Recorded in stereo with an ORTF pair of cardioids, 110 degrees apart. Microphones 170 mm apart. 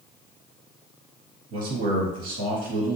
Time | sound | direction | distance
1.5 | a man speaking | 70° right | 1.4 m